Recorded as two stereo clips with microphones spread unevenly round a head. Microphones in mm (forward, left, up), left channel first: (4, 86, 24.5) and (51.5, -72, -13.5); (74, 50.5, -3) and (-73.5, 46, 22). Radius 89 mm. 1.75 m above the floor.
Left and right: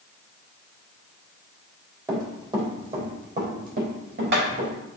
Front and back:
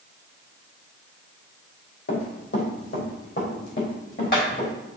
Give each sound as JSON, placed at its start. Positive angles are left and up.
{"t": 2.1, "sound": "running footsteps", "azimuth_deg": 5, "distance_m": 3.5}